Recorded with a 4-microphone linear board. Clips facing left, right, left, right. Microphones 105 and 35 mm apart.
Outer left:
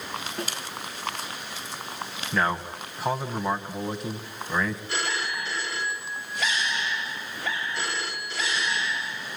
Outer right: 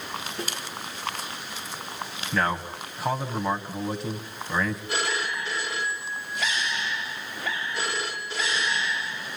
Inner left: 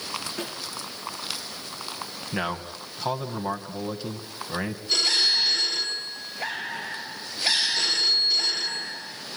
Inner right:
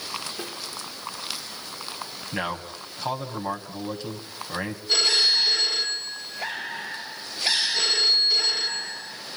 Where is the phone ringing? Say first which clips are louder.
Outer right 2 dB, inner right 2 dB; 15° right (ahead or behind), 4 m.